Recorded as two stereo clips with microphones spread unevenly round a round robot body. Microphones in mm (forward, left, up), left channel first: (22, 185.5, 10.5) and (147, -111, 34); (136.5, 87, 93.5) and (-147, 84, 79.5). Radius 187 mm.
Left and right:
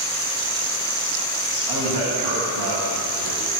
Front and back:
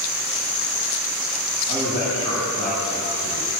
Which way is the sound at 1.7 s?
65° right.